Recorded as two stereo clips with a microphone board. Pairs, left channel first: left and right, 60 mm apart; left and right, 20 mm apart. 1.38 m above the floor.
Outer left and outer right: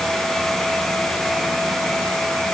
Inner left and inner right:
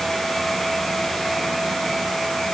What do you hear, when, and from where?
Only background noise.